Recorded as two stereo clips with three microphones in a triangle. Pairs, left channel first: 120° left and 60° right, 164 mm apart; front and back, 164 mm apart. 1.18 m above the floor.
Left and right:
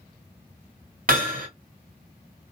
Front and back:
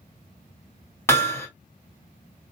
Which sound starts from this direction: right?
Hammering, at 1.1 s.